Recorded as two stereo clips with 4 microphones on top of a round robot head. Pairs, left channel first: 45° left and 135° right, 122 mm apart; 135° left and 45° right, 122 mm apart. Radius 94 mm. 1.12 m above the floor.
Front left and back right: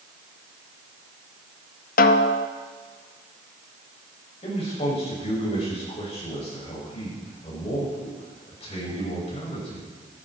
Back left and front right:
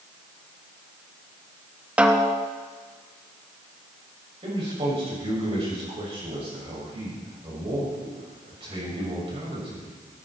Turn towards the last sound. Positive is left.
turn(degrees=5)